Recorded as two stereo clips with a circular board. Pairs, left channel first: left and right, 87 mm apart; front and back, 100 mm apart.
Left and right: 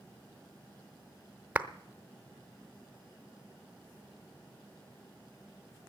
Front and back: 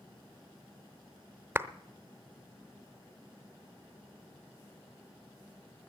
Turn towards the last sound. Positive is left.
turn(degrees=-140)